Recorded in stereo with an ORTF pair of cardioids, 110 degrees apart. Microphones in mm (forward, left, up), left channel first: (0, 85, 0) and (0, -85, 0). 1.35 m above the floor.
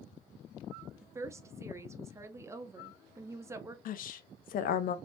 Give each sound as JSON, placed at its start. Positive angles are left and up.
{"t": 1.0, "sound": "a woman speaking", "azimuth_deg": -15, "distance_m": 0.5}
{"t": 3.9, "sound": "a woman speaking", "azimuth_deg": 55, "distance_m": 0.5}